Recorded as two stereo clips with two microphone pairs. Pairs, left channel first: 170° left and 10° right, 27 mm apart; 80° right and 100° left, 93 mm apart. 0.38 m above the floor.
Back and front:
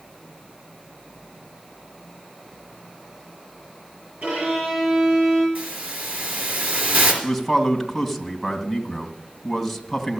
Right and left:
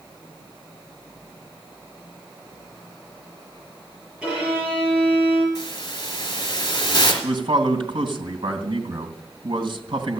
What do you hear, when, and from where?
4.2 s a violin: 20° left, 8 m
5.5 s a hiss: 40° right, 4 m
7.2 s a man speaking: 80° left, 2.5 m